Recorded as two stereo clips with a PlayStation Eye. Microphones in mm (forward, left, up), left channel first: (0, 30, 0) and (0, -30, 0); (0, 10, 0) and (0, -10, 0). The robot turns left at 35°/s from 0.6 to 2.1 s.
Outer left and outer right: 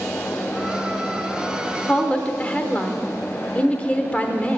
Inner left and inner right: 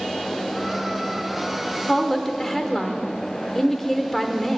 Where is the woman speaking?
15° left (ahead or behind), 0.9 m; by 4.6 s 20° left (ahead or behind), 0.9 m.